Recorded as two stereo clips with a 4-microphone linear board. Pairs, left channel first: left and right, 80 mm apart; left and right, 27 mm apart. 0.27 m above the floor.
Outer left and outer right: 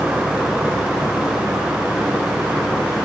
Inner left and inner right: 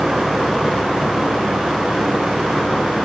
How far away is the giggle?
I don't hear a giggle.